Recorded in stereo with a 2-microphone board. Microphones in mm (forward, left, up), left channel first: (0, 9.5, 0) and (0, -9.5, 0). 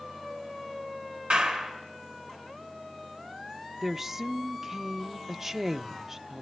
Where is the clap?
80° right, 4 m.